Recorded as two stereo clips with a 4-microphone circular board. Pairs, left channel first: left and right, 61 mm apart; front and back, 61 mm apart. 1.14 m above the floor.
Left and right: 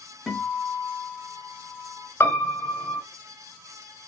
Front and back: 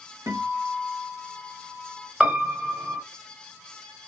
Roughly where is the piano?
Left.